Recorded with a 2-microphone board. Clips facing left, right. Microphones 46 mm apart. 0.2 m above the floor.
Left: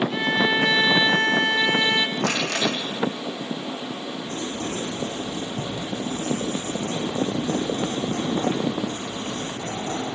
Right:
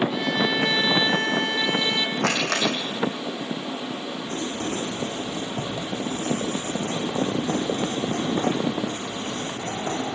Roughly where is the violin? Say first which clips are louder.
Left 2 dB; left.